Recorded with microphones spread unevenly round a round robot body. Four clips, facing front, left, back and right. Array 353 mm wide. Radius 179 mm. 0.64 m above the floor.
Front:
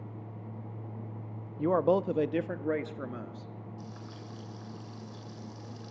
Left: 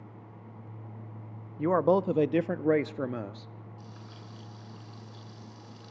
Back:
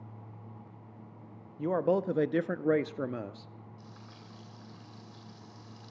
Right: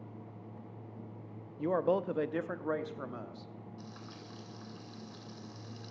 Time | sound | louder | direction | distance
1.6 | a man speaking | left 6 dB, front 2 dB | 50° left | 0.8 m
3.8 | frying | even, front 6 dB | 35° right | 8 m